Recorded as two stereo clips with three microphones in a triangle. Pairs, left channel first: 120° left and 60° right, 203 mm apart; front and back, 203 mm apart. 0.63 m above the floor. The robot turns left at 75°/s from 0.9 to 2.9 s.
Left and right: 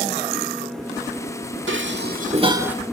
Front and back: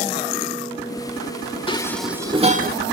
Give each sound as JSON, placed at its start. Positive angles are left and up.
{"t": 1.7, "sound": "dishes clattering", "azimuth_deg": -65, "distance_m": 1.4}